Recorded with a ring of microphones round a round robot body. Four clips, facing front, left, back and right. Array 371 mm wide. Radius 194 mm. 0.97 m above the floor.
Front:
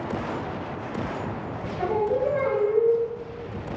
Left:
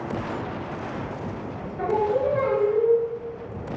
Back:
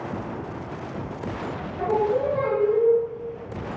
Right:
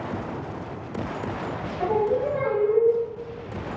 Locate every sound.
1.8 s singing: 150° left, 1.3 m